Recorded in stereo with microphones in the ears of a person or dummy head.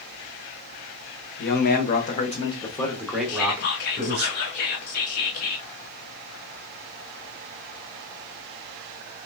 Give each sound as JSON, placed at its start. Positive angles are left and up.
{"t": 1.4, "sound": "a man speaking", "side_deg": 55, "distance_m": 1.1}
{"t": 3.3, "sound": "whispering", "side_deg": 45, "distance_m": 0.7}